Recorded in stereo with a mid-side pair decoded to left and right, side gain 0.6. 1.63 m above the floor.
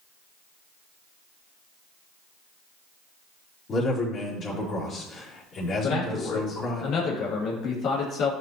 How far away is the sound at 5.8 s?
About 3 m.